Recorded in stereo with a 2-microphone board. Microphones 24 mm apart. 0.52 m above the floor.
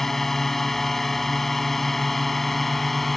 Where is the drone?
15° left (ahead or behind); by 3.2 s 10° left (ahead or behind).